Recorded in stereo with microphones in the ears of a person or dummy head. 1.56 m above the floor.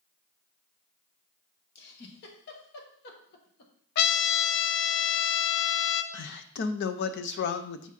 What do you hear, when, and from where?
1.8 s a giggle: 55° left (ahead or behind), 1.3 m
4.0 s a trumpet: 55° left (ahead or behind), 0.6 m
6.1 s a man speaking: 60° left (ahead or behind), 0.6 m